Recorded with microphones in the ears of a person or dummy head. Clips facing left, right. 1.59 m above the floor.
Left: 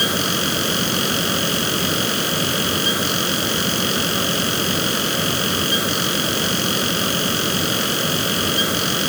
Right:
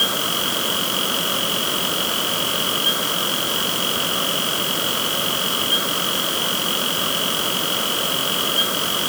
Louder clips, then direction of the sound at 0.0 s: Left 4 dB; 35° left (ahead or behind).